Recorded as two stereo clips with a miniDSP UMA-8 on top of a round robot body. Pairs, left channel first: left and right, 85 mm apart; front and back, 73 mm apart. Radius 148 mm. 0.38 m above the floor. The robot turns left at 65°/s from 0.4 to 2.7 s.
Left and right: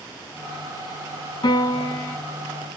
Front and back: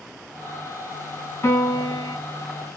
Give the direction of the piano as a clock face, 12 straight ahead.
10 o'clock.